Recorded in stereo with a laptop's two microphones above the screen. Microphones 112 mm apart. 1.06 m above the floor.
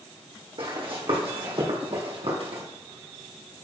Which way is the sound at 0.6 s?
55° right (ahead or behind).